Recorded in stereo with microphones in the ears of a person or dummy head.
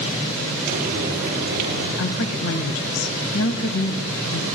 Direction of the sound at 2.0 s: 85° left.